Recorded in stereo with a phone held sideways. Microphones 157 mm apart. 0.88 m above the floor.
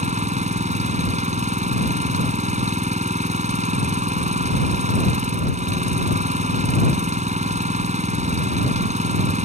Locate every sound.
0.0 s an engine running: 50° right (ahead or behind)